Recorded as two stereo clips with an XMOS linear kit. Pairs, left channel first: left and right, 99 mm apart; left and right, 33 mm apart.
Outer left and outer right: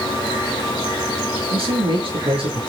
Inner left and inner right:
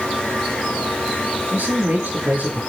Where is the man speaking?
70° right (ahead or behind), 7.5 m.